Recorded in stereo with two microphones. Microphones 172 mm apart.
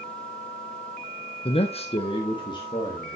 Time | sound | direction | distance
1.4 | a man speaking | 30° left (ahead or behind) | 0.6 m